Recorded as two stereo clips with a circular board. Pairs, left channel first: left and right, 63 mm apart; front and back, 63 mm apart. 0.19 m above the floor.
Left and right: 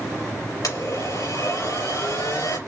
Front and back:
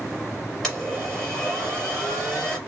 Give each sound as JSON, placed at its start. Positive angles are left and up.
{"t": 0.6, "sound": "a blender", "azimuth_deg": 85, "distance_m": 4.0}